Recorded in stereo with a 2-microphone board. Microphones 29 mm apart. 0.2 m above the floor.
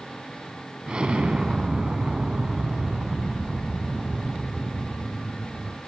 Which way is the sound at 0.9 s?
40° right (ahead or behind).